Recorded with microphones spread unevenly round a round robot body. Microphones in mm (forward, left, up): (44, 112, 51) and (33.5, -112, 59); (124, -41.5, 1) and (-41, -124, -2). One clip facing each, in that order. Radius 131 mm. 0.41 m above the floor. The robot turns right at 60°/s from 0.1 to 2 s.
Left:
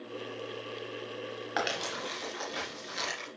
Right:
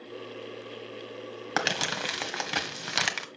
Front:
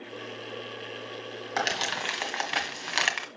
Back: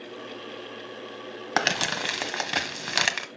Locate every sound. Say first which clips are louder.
1.6 s crumpling: right 3 dB, back 4 dB; 135° right, 1.5 m; by 3.3 s 105° right, 1.5 m